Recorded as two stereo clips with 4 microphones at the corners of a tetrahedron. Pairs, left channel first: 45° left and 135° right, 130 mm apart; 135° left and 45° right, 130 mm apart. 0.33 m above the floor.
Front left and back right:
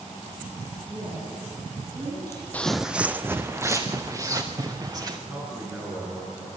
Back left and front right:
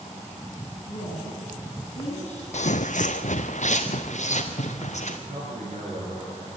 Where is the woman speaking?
170° left, 9 m.